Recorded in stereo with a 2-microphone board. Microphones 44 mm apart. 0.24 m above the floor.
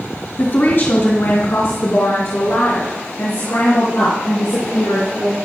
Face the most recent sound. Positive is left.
turn(degrees=80)